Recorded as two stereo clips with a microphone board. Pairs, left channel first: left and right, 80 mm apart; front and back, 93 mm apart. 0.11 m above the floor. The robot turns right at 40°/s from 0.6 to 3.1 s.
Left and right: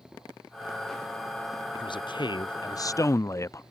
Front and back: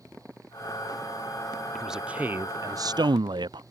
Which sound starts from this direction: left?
A man speaking, at 1.8 s.